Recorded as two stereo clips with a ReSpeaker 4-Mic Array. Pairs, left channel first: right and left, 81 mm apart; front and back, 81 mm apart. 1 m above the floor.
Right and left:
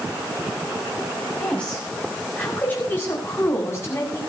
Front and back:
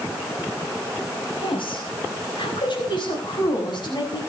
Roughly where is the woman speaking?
Ahead.